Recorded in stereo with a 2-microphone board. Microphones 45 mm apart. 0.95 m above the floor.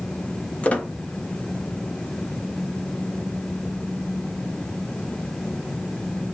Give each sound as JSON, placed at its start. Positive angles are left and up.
{"t": 0.6, "sound": "a squeak", "side_deg": 35, "distance_m": 0.8}